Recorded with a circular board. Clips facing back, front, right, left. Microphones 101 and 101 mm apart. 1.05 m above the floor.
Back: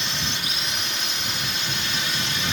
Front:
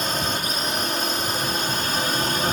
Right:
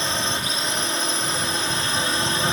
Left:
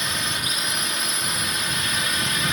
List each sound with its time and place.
0.0 s a drone: 35° right